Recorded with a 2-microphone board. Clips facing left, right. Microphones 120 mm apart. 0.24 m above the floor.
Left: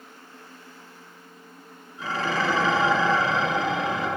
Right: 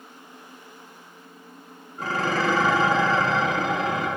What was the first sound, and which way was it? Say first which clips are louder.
Dishes clattering: right 2 dB; 45° right (ahead or behind).